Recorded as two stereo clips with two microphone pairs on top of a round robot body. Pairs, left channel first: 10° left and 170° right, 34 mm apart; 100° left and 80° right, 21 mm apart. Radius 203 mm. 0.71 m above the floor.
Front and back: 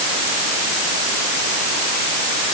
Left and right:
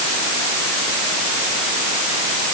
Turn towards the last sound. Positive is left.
No sound to turn to.